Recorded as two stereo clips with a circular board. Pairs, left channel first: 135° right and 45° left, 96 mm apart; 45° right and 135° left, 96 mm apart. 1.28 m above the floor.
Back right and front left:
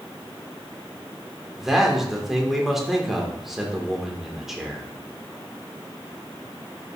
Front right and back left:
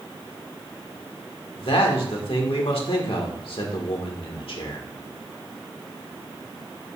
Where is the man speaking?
40° right, 1.8 m.